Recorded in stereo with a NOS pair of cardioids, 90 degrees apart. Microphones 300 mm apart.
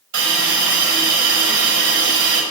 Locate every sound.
0.1 s a hiss: 70° right, 5 m